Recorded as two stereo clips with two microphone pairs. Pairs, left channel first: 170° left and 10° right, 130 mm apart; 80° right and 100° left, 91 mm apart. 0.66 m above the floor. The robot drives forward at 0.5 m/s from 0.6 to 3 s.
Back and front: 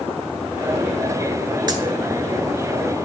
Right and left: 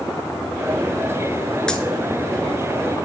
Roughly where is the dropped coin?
Ahead.